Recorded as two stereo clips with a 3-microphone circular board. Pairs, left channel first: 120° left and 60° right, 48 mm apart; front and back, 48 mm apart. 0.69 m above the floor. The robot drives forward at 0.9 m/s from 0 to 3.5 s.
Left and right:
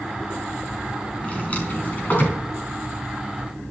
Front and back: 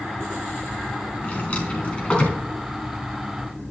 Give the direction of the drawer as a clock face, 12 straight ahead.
10 o'clock.